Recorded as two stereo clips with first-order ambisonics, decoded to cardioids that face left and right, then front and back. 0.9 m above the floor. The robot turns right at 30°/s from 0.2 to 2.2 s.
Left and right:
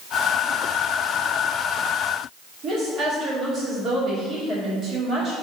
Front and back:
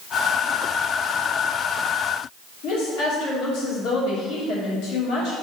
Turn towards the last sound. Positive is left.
turn(degrees=-30)